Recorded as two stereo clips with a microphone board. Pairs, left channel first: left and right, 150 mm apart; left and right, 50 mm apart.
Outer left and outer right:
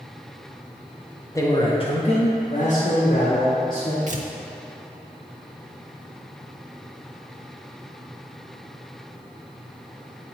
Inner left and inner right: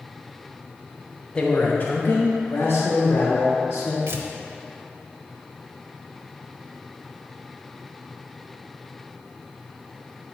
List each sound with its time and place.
1.4 s a man speaking: 20° left (ahead or behind), 0.7 m; by 4.0 s 65° left (ahead or behind), 1.8 m
4.1 s tearing paper: 55° right (ahead or behind), 0.7 m